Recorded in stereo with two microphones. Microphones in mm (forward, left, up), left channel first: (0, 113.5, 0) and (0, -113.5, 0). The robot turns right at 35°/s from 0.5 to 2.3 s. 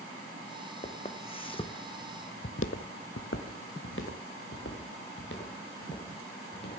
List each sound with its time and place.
0.8 s footsteps: 30° left (ahead or behind), 1.6 m; by 6.8 s 50° left (ahead or behind), 4.5 m